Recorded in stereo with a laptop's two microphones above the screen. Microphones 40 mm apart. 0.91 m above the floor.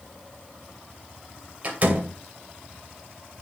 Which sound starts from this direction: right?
A door slam, at 1.6 s.